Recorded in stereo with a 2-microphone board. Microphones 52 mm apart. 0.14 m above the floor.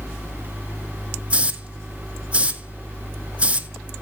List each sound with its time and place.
1.3 s a hiss: 25° right (ahead or behind), 1.4 m